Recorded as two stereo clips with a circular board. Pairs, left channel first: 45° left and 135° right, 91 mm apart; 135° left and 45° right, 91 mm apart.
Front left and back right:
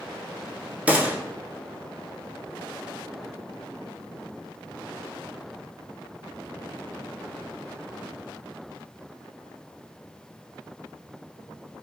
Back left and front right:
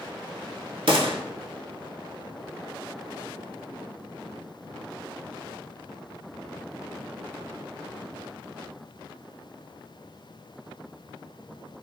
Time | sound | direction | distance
0.9 | a gunshot | 60° right | 0.6 m